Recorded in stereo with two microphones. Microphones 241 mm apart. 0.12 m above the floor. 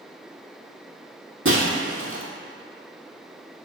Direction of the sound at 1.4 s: 60° right (ahead or behind).